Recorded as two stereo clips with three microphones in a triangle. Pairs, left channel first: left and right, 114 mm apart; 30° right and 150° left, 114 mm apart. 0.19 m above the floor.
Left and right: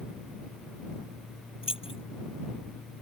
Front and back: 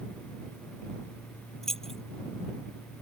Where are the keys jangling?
55° left.